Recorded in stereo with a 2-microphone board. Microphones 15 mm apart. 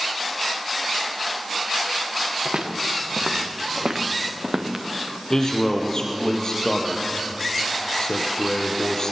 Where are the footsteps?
70° right (ahead or behind), 3 m; by 4.8 s 20° right (ahead or behind), 3 m.